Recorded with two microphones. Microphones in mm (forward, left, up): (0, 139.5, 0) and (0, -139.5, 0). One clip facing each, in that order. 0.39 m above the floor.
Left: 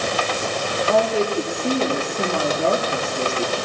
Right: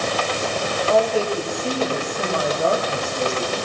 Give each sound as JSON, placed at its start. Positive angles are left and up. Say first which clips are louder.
{"t": 0.9, "sound": "a woman speaking", "louder": "even", "side_deg": 20, "distance_m": 7.5}